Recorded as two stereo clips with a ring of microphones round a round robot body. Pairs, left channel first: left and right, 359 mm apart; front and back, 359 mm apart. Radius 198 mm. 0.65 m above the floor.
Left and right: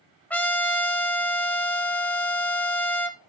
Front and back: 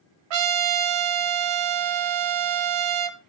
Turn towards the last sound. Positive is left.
turn(degrees=175)